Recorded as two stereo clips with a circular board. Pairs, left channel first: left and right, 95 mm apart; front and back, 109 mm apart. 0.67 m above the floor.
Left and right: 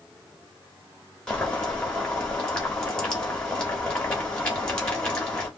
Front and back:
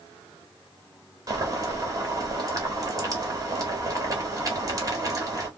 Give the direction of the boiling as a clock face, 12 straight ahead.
7 o'clock.